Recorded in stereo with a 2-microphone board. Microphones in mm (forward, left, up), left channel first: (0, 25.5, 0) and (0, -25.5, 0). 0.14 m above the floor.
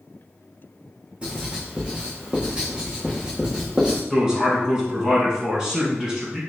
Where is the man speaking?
15° right (ahead or behind), 1.2 m.